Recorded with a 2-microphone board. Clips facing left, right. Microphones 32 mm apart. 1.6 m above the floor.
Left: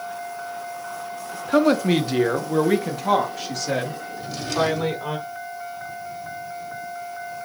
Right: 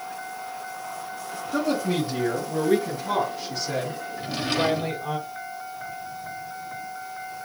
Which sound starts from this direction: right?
A drawer, at 4.2 s.